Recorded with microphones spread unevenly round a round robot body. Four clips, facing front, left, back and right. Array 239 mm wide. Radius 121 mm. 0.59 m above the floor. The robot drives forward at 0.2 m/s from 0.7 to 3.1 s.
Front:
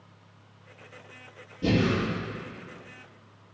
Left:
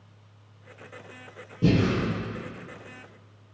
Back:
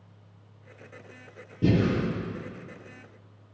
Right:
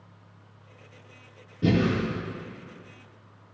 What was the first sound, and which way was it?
Breathing, 135° left.